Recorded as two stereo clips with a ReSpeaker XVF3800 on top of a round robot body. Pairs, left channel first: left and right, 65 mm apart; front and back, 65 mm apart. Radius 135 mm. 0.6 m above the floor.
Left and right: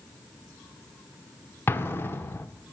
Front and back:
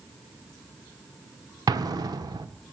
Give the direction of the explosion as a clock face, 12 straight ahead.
7 o'clock.